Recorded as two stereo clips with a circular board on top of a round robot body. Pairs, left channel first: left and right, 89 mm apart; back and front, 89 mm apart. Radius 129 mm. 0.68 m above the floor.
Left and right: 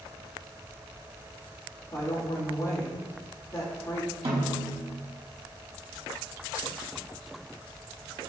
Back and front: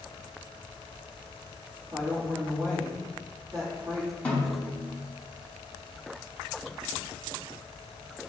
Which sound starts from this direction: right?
A snare drum, at 4.2 s.